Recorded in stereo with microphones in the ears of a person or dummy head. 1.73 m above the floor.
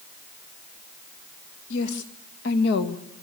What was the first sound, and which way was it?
A woman speaking, 70° left (ahead or behind).